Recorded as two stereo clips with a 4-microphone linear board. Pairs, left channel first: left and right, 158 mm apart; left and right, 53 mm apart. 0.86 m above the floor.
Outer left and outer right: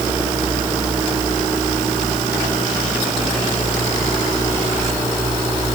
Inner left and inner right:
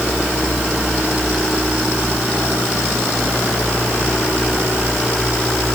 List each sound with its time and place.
Only background noise.